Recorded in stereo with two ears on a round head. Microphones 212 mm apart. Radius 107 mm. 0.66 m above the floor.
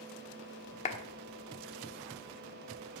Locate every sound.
0.8 s a clap: 30° left (ahead or behind), 1.2 m